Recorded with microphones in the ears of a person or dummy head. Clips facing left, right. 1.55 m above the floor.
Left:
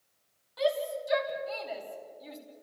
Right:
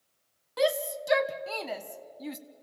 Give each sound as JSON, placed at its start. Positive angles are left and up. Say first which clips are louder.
{"t": 0.6, "sound": "a shout", "louder": "right 2 dB", "side_deg": -70, "distance_m": 1.3}